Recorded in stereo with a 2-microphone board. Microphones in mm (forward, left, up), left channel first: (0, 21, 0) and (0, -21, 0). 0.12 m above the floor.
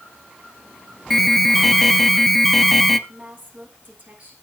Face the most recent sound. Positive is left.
turn(degrees=-40)  # may be behind; listen again after turning